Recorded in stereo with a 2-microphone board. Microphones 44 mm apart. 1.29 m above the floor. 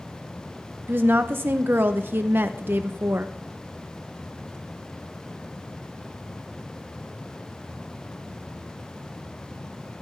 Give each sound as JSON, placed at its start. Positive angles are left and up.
{"t": 0.9, "sound": "a woman speaking", "side_deg": -55, "distance_m": 0.6}